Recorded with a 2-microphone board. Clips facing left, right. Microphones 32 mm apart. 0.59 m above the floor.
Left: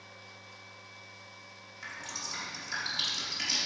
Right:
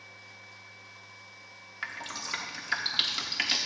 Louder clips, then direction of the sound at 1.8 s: Right 4 dB; 50° right (ahead or behind).